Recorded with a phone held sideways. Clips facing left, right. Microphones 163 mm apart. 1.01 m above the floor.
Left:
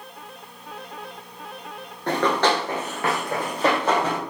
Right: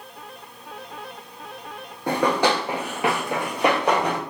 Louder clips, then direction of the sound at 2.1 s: Even; 10° right (ahead or behind).